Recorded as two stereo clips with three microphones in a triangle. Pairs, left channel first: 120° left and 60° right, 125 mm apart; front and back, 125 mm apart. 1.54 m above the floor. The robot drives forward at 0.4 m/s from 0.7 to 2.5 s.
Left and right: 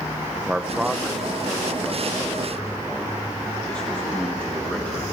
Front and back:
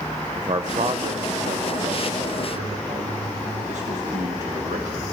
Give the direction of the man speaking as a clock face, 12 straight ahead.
5 o'clock.